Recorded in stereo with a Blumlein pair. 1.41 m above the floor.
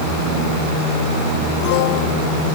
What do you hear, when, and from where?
Only background noise.